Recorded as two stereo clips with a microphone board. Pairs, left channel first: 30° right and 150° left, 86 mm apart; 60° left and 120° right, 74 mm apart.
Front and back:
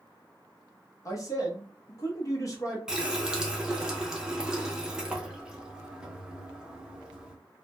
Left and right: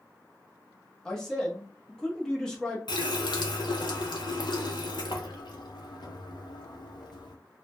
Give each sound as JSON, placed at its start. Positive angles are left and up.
{"t": 1.1, "sound": "a man speaking", "azimuth_deg": -20, "distance_m": 0.8}
{"t": 2.9, "sound": "a running tap", "azimuth_deg": 70, "distance_m": 0.5}